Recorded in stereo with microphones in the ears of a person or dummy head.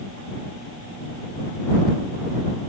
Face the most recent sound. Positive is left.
No sound to turn to.